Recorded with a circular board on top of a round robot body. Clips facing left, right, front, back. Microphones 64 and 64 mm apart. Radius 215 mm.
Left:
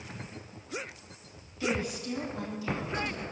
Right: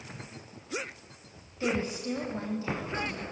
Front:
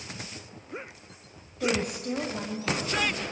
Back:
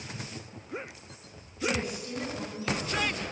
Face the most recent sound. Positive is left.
turn(degrees=-35)